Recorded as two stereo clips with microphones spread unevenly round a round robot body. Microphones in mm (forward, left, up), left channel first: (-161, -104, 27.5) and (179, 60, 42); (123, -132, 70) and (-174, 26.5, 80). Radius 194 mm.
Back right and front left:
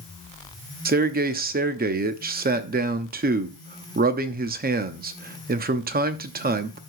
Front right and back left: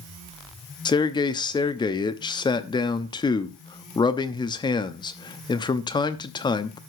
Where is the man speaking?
20° left, 0.8 m.